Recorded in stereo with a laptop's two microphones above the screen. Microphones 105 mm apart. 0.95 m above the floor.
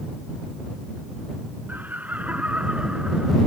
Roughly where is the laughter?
Centre.